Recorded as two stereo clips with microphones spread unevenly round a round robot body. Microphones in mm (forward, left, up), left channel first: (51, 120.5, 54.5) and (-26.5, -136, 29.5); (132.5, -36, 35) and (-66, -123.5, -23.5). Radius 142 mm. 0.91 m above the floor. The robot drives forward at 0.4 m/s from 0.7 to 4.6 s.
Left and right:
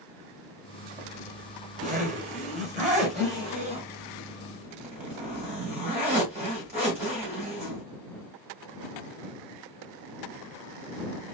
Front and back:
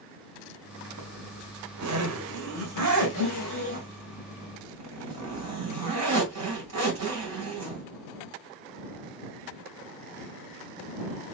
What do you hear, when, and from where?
1.0 s a zipper: 170° right, 1.1 m; by 7.8 s 175° right, 2.5 m